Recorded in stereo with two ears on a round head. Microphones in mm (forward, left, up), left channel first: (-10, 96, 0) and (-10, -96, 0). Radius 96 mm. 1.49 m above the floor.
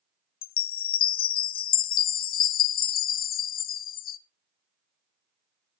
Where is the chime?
40° left (ahead or behind), 0.6 m.